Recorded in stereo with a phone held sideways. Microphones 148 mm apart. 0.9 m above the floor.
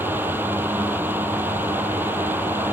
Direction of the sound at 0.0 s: 15° right (ahead or behind).